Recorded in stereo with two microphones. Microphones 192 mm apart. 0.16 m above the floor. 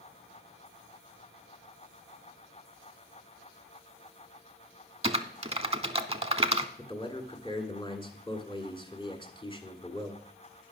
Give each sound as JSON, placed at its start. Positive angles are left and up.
{"t": 5.0, "sound": "typing on a keyboard", "side_deg": -30, "distance_m": 0.6}
{"t": 6.8, "sound": "a man speaking", "side_deg": 25, "distance_m": 1.5}